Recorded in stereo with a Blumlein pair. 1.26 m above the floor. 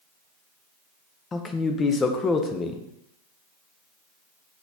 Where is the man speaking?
15° left, 0.6 m.